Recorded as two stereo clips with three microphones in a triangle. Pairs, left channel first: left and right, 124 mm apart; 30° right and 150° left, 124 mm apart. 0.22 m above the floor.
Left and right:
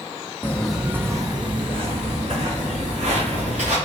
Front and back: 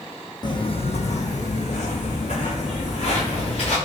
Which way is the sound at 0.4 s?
20° left.